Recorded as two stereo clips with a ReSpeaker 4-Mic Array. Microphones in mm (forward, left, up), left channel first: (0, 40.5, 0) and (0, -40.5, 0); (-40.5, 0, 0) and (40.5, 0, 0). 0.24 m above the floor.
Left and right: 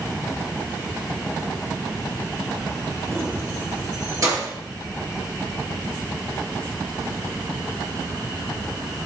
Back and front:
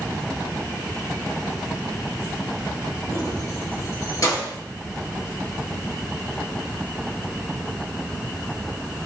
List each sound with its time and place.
3.1 s keys jangling: 145° right, 2.5 m; by 4.5 s 130° right, 4 m